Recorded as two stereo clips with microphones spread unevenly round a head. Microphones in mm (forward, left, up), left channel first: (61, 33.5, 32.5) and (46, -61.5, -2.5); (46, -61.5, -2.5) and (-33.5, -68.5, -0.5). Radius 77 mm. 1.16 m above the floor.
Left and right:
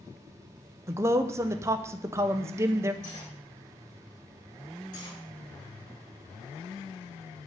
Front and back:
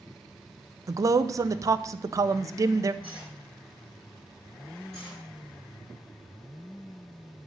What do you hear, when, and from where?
0.9 s a man speaking: 135° right, 0.6 m
3.0 s cutlery clinking: 100° left, 4 m
4.9 s cutlery clinking: 95° left, 3.5 m